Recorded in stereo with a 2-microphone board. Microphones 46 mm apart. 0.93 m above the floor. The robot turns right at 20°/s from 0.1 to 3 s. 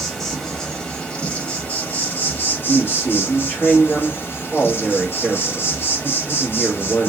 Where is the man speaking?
40° left (ahead or behind), 1.3 m.